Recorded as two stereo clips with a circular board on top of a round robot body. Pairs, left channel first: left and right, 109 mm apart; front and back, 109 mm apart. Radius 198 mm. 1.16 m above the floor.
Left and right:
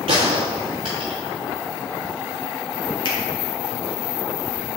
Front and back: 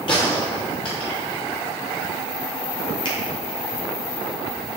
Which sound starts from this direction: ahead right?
A gunshot, at 0.1 s.